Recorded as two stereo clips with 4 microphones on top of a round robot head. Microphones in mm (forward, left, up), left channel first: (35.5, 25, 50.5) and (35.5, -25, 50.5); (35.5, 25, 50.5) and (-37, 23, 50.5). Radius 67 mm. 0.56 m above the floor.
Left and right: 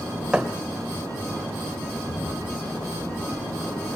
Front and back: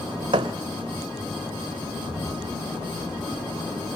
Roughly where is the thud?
Behind.